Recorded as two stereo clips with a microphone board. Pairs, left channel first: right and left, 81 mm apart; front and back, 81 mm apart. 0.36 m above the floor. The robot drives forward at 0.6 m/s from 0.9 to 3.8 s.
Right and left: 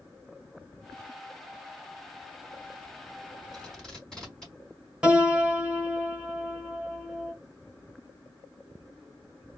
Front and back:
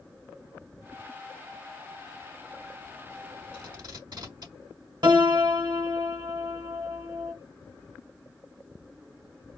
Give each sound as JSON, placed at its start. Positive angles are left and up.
{"t": 3.5, "sound": "tape being pulled", "azimuth_deg": -175, "distance_m": 3.5}
{"t": 5.0, "sound": "a piano", "azimuth_deg": 165, "distance_m": 1.2}